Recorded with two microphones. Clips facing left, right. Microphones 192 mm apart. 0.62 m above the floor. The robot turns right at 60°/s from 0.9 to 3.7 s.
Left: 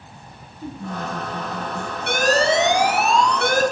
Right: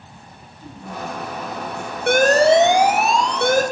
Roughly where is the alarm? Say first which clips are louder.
Right 6 dB; behind right.